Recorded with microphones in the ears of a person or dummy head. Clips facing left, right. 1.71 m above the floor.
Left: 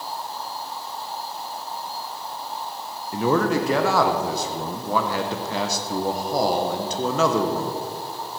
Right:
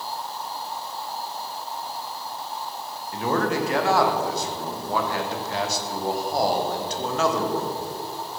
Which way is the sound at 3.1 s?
70° left (ahead or behind).